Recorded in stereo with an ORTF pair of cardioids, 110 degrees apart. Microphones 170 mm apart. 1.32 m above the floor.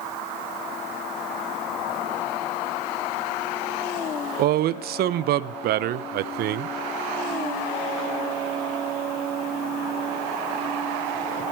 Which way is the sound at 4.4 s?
65° right.